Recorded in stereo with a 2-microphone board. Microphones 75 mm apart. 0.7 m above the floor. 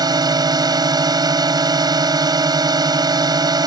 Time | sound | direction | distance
0.0 | a drone | 55° right (ahead or behind) | ?